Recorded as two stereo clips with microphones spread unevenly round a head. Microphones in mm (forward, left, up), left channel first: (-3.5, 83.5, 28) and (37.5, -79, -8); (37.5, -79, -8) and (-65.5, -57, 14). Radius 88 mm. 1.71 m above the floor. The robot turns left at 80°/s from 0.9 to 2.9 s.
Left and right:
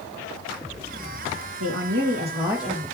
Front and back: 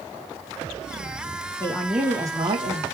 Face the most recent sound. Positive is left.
turn(degrees=175)